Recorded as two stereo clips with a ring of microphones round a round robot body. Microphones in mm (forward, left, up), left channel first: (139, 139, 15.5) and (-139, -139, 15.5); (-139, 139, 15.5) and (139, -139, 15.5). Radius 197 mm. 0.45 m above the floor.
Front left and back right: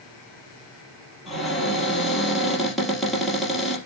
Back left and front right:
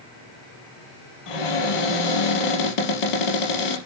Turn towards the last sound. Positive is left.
turn(degrees=135)